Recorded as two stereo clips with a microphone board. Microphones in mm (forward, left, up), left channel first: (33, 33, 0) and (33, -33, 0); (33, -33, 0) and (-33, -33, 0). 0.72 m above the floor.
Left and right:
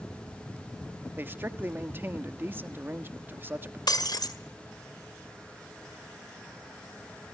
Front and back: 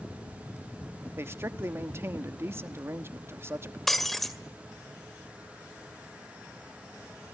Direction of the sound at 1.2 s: 140° right.